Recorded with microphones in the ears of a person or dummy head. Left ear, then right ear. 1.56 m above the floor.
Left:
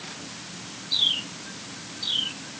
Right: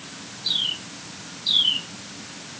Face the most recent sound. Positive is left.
No sound to turn to.